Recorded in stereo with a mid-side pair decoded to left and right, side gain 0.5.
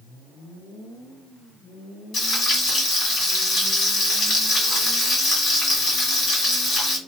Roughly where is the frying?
Ahead left.